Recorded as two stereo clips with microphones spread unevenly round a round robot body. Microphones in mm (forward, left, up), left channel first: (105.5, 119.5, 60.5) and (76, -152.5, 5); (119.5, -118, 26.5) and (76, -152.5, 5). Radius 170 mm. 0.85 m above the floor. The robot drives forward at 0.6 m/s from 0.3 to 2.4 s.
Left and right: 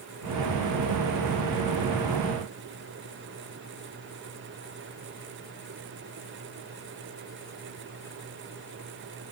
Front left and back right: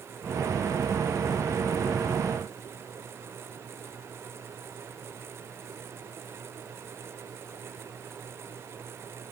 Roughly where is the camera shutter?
I don't hear a camera shutter.